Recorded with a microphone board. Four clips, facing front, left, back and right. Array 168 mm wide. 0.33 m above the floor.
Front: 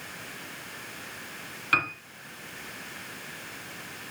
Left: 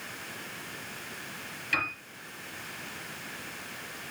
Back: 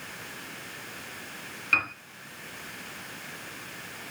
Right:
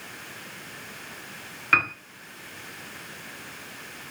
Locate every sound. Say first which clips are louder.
1.7 s a piano: right 8 dB, front 2 dB; 65° right, 2 m